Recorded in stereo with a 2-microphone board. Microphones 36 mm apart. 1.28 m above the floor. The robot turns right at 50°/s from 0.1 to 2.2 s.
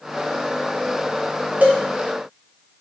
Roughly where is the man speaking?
I don't hear a man speaking.